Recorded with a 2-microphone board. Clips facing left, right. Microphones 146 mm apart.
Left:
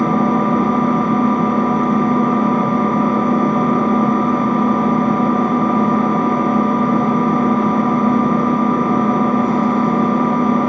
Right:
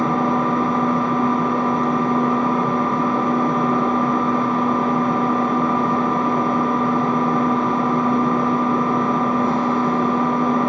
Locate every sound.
0.0 s an engine running: 50° left (ahead or behind), 1.0 m